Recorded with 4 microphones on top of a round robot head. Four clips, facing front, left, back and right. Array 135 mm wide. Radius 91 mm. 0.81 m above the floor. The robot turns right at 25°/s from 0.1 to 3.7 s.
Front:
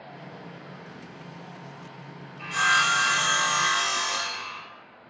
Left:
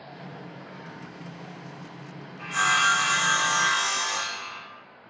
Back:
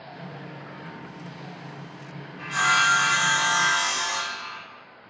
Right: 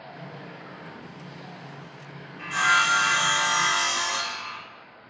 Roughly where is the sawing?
Behind right.